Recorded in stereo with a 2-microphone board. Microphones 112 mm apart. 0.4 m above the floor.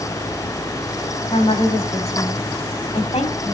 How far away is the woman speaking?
About 3 m.